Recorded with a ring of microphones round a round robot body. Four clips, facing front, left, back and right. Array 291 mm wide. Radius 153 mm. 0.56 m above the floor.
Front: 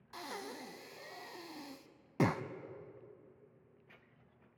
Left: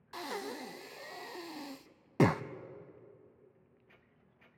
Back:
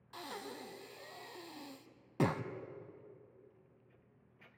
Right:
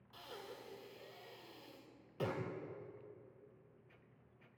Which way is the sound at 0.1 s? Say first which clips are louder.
Left 12 dB, front 1 dB; 85° left.